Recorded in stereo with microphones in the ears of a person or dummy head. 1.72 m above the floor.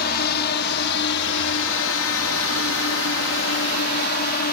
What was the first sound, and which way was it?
A drone, 55° left (ahead or behind).